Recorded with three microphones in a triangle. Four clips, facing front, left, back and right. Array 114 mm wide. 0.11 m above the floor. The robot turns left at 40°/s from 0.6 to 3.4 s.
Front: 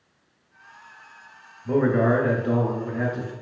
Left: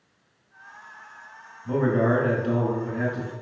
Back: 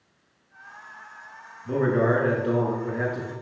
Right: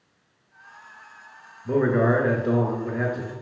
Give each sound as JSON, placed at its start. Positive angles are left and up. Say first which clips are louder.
{"t": 1.6, "sound": "a man speaking", "louder": "right 2 dB, front 2 dB", "azimuth_deg": -60, "distance_m": 1.1}